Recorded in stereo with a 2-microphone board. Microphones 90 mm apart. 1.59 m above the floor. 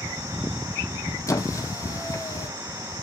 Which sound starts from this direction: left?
A squeak, at 1.3 s.